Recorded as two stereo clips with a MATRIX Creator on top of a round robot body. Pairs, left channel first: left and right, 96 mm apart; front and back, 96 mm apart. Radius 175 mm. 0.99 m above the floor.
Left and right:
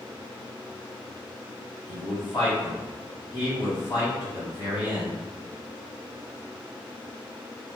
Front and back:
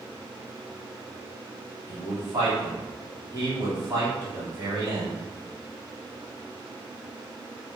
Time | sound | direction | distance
1.9 | a man speaking | 135° left | 1.8 m